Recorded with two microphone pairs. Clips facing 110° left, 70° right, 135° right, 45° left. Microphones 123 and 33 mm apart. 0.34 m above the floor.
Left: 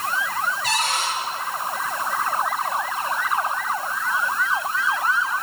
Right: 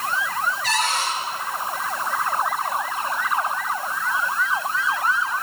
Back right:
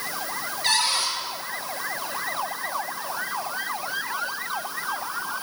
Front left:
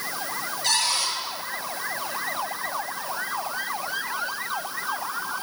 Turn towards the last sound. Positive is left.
turn(degrees=175)